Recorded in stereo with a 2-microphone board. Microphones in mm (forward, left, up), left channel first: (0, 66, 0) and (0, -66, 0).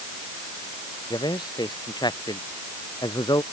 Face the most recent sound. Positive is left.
turn(degrees=30)  # may be behind; listen again after turning